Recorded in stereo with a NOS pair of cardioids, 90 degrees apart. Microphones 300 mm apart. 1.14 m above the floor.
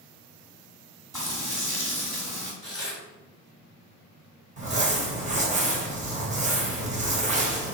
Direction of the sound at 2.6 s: Straight ahead.